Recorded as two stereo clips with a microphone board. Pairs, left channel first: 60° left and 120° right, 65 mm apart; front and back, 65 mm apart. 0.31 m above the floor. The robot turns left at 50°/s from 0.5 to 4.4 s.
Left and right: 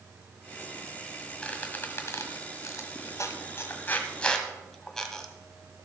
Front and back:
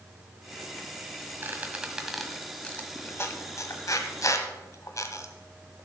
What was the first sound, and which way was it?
A squeak, 130° left.